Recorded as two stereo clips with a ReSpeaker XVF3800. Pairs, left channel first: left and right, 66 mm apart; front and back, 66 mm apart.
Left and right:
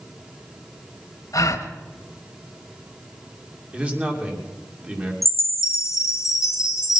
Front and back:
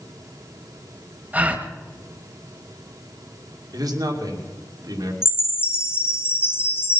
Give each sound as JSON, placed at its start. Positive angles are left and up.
{"t": 1.3, "sound": "a gasp", "azimuth_deg": 115, "distance_m": 1.4}
{"t": 3.7, "sound": "a man speaking", "azimuth_deg": -160, "distance_m": 2.5}
{"t": 5.2, "sound": "a chime", "azimuth_deg": 55, "distance_m": 1.2}